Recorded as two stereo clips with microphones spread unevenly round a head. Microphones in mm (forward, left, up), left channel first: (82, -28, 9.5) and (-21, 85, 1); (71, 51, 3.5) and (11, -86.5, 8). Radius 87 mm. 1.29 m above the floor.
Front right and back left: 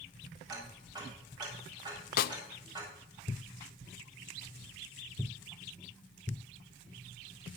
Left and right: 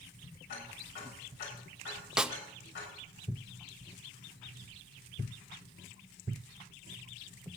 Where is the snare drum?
30° right, 0.6 m.